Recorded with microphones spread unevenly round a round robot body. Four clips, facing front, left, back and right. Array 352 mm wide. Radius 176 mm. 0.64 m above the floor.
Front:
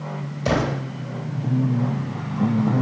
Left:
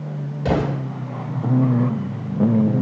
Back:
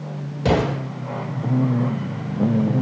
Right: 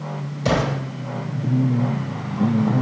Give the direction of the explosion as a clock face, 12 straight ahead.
6 o'clock.